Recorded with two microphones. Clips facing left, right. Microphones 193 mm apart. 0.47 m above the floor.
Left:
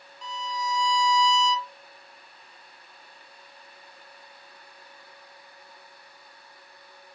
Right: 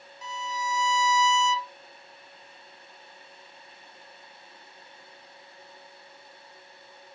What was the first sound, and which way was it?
A violin, 10° right (ahead or behind).